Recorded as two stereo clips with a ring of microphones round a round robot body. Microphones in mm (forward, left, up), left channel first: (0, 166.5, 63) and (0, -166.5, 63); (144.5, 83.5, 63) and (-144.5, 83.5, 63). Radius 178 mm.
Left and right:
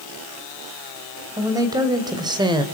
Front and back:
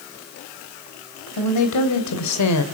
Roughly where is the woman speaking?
Ahead.